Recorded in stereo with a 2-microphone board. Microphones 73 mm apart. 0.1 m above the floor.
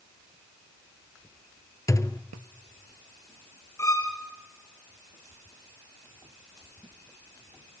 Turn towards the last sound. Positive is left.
turn(degrees=40)  # may be behind; listen again after turning